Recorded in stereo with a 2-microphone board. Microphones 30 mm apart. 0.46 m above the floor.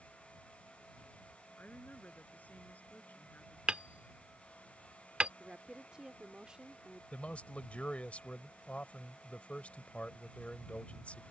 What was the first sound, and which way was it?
A woman speaking, 75° left (ahead or behind).